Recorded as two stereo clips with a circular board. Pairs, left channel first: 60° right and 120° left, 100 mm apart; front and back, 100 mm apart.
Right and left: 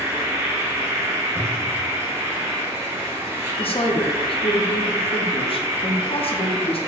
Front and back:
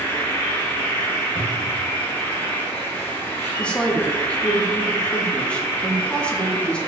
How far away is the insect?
About 1.1 m.